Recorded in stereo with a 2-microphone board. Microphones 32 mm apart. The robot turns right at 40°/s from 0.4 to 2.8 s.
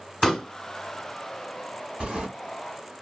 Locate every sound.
0.2 s a pop: centre (ahead or behind), 1.6 m; by 0.5 s 5° left (ahead or behind), 1.6 m
2.0 s a sliding door: 35° right (ahead or behind), 1.7 m; by 2.3 s 25° right (ahead or behind), 1.7 m